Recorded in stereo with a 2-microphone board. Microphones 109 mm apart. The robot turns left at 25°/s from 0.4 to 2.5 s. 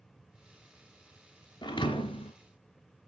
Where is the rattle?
I don't hear a rattle.